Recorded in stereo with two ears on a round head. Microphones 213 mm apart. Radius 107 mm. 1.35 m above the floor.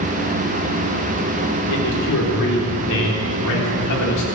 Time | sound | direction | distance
1.7 | a man speaking | 75° left (ahead or behind) | 4 m